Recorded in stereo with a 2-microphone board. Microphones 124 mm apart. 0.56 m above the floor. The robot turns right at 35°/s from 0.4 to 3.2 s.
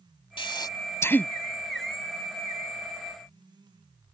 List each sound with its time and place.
0.4 s breathing: 40° left (ahead or behind); by 1.3 s 10° left (ahead or behind)